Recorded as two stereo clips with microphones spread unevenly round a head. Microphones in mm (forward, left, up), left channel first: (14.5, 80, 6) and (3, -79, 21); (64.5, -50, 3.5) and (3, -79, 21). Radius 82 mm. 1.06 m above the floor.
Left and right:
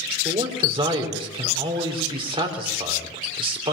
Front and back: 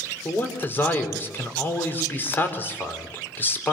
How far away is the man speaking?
About 4 m.